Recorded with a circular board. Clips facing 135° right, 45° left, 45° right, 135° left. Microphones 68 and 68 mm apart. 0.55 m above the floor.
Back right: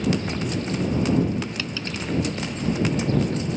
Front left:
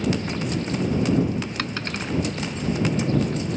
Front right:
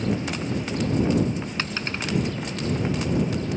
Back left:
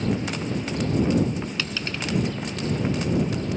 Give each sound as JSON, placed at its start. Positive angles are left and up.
{"t": 1.6, "sound": "a dropped coin", "azimuth_deg": 10}